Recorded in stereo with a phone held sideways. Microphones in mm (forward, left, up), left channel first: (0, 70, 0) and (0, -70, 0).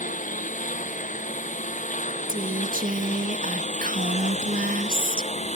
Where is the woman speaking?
80° right.